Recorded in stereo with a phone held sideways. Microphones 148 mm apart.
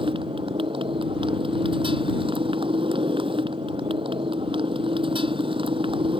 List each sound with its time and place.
0.0 s a motorcycle: 35° right (ahead or behind)